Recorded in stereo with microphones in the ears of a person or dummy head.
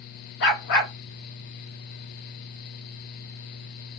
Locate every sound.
0.4 s a dog barking: 45° left (ahead or behind), 1.7 m